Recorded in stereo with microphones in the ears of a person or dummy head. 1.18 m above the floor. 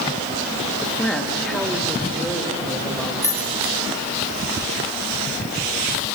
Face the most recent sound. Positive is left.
turn(degrees=15)  # may be behind; listen again after turning